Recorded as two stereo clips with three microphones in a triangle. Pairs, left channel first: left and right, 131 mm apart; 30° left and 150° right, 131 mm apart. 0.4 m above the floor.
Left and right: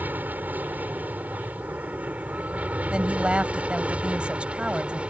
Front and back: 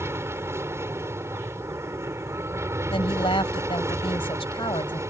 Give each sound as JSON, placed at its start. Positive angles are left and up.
{"t": 0.0, "sound": "an aircraft", "azimuth_deg": -135}
{"t": 2.9, "sound": "a woman speaking", "azimuth_deg": -10}